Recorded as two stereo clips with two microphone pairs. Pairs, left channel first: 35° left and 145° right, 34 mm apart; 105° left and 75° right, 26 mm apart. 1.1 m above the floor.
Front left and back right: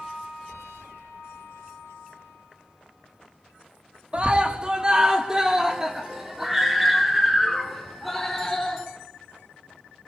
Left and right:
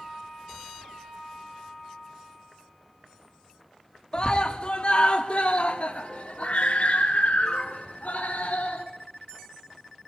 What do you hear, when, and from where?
4.1 s a scream: 160° left, 1.9 m; by 8.8 s 125° left, 4 m